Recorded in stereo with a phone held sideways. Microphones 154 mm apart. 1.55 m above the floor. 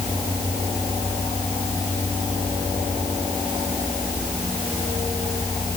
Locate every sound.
Only background noise.